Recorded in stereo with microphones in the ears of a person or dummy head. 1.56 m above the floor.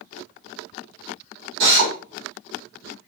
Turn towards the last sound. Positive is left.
turn(degrees=-60)  # may be behind; listen again after turning